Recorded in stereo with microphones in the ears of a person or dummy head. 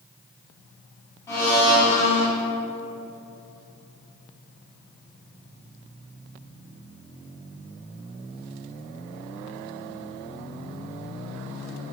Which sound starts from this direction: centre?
A blender, at 1.3 s.